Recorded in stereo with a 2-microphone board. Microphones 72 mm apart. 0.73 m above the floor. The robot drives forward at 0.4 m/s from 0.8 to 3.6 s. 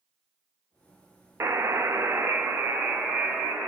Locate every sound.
1.4 s a buzzer: 35° right (ahead or behind), 0.5 m; by 3.7 s 20° right (ahead or behind), 1.0 m